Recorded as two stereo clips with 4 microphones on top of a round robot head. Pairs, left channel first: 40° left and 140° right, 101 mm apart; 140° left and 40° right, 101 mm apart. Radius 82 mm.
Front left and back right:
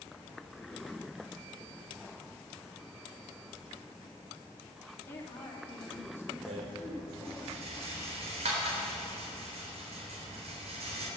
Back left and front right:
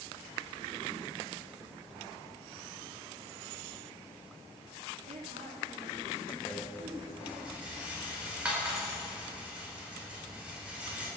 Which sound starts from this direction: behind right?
A rattle, at 6.5 s.